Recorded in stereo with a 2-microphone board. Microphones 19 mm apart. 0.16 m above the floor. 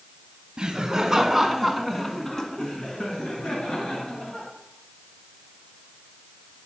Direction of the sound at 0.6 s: 40° right (ahead or behind).